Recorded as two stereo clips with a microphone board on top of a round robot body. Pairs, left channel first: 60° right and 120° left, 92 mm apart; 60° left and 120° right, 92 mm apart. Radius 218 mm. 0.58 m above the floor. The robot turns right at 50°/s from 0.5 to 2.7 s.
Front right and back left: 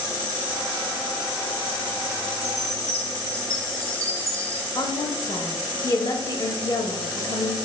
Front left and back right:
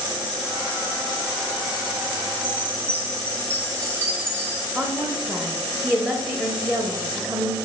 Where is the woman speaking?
50° right, 0.9 m.